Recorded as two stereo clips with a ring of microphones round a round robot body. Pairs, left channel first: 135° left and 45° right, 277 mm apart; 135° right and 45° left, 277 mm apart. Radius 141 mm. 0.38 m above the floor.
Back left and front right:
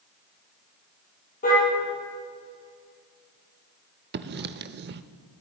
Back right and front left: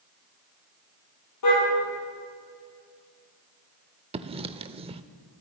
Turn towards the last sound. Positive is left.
turn(degrees=-15)